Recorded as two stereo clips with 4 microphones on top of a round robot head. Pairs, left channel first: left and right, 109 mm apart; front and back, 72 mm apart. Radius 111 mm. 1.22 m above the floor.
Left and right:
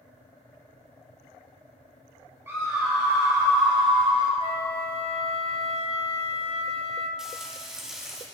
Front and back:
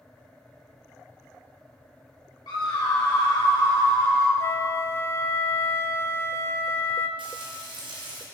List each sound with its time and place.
2.5 s a scream: 20° right, 3 m; by 4.3 s 40° right, 3 m
4.4 s a flute: 55° left, 0.9 m
7.2 s frying: 175° right, 1.7 m